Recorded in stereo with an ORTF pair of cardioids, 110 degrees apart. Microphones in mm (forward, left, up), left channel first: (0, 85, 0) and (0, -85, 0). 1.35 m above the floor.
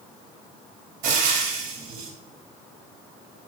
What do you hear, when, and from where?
1.0 s frying: 55° right, 3 m